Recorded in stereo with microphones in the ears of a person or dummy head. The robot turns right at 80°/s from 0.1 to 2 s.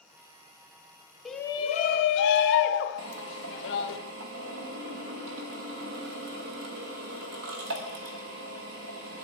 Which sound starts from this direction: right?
A drill, at 3.0 s.